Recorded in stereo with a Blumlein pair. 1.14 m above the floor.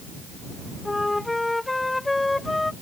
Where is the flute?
5° left.